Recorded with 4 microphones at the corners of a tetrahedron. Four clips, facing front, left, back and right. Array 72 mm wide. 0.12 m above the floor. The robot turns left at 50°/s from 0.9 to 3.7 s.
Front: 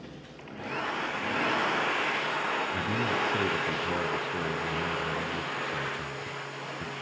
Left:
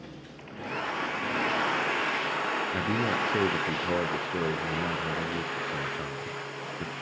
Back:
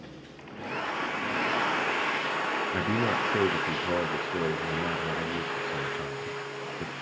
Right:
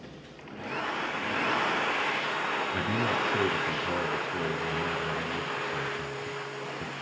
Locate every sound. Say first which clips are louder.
2.7 s a man speaking: left 1 dB, back 2 dB; 175° left, 1.2 m; by 6.9 s 125° left, 1.2 m